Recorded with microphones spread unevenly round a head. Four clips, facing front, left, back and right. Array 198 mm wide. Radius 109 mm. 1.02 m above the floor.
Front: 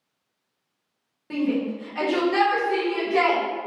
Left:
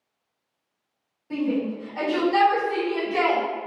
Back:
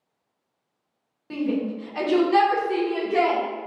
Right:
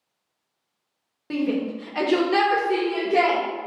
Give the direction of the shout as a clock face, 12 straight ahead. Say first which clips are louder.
Right 1 dB, front 1 dB; 2 o'clock.